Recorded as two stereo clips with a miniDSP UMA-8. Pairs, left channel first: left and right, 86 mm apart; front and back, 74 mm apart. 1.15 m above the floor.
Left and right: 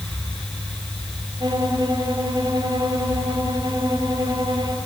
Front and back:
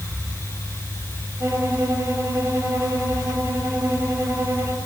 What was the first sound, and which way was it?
A violin, 125° right.